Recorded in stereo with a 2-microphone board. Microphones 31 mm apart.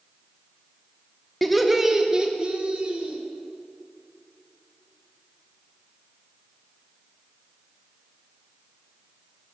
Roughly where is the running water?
No running water in this recording.